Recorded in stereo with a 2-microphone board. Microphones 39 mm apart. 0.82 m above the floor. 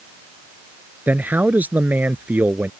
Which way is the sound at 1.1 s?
50° right (ahead or behind).